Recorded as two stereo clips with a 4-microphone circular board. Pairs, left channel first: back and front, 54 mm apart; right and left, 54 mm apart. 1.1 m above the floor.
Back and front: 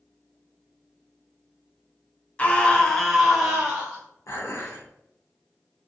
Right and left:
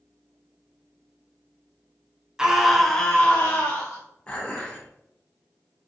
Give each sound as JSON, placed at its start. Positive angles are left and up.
{"t": 2.4, "sound": "a scream", "azimuth_deg": 150, "distance_m": 0.6}
{"t": 4.3, "sound": "dishes clattering", "azimuth_deg": -155, "distance_m": 0.8}